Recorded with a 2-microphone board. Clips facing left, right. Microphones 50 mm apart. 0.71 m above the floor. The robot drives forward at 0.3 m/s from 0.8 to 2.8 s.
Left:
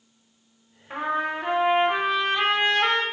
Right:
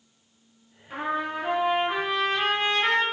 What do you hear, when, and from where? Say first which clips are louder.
0.9 s a trumpet: left 2 dB; 30° left (ahead or behind), 1.8 m; by 3.0 s 35° left (ahead or behind), 1.5 m